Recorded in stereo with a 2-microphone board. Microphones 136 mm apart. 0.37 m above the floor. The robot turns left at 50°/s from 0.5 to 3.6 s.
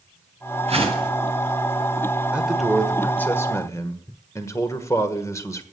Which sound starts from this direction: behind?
A man speaking, at 2.3 s.